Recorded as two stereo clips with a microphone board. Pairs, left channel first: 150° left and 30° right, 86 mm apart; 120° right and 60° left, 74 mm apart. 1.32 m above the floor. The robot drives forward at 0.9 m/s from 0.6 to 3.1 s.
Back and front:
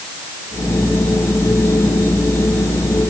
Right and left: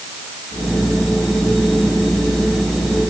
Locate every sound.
Only background noise.